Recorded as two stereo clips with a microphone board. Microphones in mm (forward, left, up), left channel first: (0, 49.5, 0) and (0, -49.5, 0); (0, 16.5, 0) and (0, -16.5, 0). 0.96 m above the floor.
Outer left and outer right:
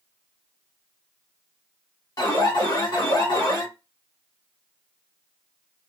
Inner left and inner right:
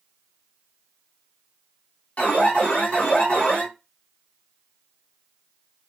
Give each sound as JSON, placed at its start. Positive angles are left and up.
{"t": 2.2, "sound": "an alarm", "side_deg": 45, "distance_m": 1.2}